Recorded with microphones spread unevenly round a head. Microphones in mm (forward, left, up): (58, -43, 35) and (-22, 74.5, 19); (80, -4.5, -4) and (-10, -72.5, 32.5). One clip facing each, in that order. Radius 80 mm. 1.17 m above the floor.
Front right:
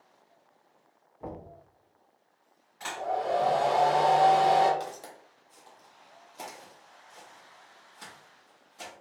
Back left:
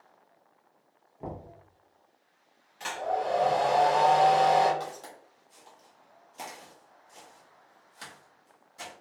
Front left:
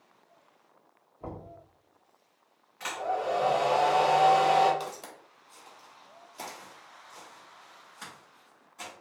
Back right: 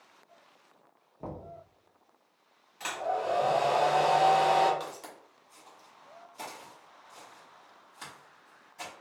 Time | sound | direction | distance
1.2 | knocking | 175° right | 1.1 m
2.8 | a hair dryer | 160° right | 1.3 m
4.8 | footsteps | 10° right | 1.3 m